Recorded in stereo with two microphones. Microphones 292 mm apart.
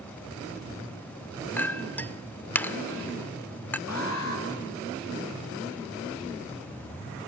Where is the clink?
5° left (ahead or behind), 0.6 m.